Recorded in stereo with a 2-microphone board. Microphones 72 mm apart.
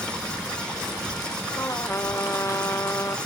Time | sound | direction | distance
1.6 | a trumpet | 40° left (ahead or behind) | ?